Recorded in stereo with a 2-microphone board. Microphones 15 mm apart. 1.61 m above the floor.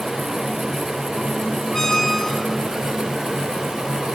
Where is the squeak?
35° left (ahead or behind), 4.5 m.